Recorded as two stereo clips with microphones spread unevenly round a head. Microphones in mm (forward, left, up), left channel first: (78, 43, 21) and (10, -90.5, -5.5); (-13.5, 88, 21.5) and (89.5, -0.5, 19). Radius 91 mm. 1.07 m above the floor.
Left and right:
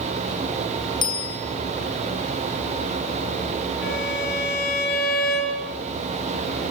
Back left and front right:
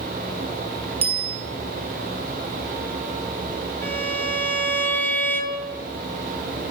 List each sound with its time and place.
1.0 s a bicycle bell: 5° left, 7.5 m
3.8 s a violin: 65° left, 6.5 m